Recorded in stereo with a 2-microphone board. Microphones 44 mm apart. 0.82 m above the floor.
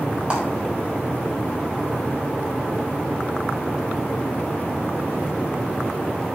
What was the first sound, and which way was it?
A clap, 25° right (ahead or behind).